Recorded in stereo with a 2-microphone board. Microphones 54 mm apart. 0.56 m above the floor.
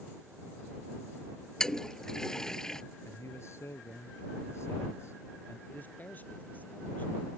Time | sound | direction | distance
1.6 | a toilet flushing | 10° left (ahead or behind) | ?
3.0 | a man speaking | 55° left (ahead or behind) | ?
5.7 | a man speaking | 35° left (ahead or behind) | ?